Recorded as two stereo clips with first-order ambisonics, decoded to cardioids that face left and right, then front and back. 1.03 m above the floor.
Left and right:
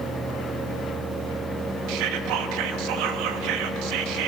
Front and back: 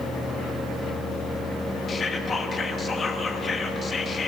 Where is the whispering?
70° right, 1.4 m.